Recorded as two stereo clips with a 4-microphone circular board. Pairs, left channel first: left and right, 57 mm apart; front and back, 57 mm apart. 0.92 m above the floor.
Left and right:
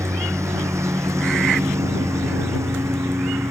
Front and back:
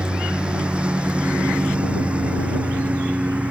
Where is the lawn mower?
110° right; by 3.5 s 115° right.